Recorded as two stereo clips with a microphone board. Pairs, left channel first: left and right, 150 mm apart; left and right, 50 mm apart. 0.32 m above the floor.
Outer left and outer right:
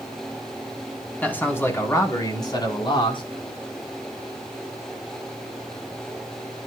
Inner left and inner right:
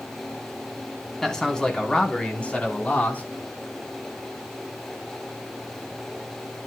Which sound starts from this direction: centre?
A man speaking, at 1.2 s.